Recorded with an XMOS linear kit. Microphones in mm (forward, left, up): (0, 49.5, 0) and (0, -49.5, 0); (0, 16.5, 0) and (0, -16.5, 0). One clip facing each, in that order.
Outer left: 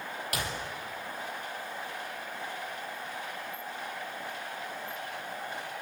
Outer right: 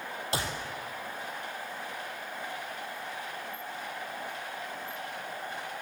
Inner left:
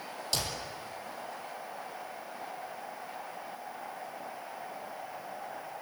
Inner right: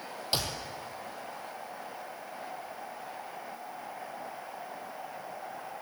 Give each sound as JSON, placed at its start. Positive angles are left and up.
{"t": 0.3, "sound": "a clap", "side_deg": -30, "distance_m": 4.0}